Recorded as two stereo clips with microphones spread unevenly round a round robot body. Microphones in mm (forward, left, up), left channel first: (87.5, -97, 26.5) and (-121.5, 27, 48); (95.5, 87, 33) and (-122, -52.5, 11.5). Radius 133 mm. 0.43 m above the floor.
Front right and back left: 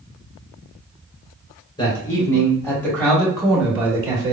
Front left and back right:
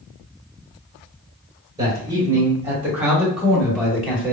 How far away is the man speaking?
About 1.7 m.